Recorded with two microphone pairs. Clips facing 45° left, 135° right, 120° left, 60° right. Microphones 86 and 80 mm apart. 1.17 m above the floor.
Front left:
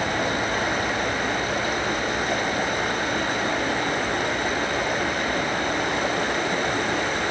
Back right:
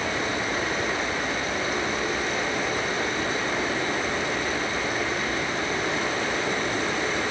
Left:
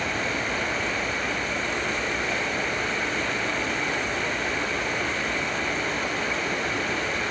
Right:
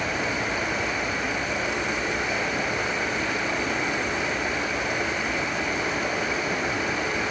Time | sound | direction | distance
0.0 | running water | 20° left | 3 m